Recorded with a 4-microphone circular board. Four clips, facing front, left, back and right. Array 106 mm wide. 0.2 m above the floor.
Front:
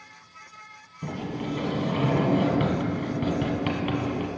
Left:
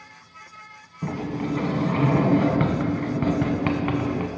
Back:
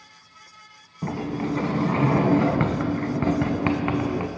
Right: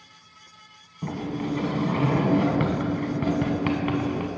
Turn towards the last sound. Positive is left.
turn(degrees=165)